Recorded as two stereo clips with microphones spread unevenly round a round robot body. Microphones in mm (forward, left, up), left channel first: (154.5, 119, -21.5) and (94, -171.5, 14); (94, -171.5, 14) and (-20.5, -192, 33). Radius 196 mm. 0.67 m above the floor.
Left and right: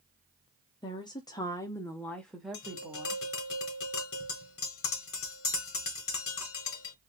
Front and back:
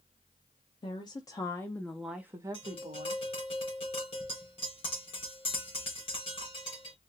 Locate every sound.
0.8 s a woman speaking: 10° left, 1.1 m; by 3.2 s 170° left, 1.0 m
2.5 s tapping: 45° left, 1.9 m